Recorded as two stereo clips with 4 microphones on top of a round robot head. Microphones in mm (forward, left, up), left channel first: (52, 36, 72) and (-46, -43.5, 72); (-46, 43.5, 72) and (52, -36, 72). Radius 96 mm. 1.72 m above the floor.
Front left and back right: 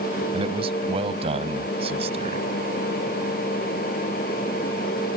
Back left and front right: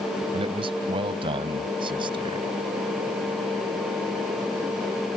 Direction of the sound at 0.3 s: 90° right.